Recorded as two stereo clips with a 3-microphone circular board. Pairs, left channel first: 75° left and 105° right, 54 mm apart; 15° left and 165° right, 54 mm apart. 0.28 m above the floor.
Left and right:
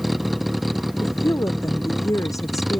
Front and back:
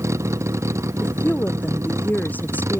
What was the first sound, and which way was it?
A vehicle, 165° left.